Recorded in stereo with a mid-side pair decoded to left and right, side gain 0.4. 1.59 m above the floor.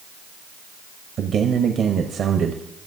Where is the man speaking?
65° right, 0.9 m.